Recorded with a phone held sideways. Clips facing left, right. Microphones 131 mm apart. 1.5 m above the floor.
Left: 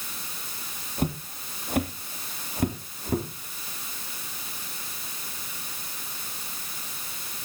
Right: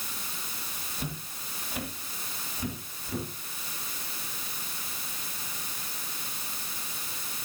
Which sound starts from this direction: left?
Footsteps, at 1.0 s.